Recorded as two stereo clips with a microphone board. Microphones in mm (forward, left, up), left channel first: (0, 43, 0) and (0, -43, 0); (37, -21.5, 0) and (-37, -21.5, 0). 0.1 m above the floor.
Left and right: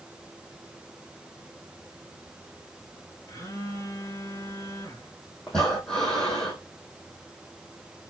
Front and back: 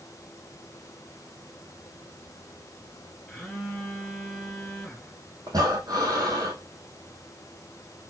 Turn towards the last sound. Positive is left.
turn(degrees=170)